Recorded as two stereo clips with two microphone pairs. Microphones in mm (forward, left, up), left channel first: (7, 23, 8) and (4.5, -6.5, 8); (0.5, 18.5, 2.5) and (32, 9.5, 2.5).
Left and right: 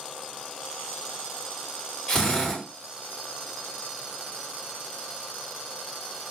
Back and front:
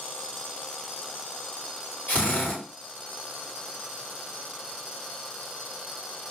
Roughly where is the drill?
Behind left.